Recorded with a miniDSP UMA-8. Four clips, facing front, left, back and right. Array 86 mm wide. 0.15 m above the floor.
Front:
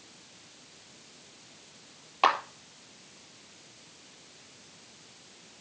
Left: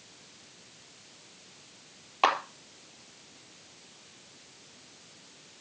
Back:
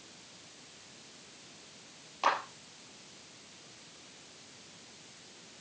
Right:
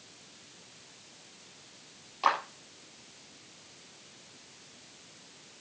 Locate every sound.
2.2 s a clap: 50° left, 4 m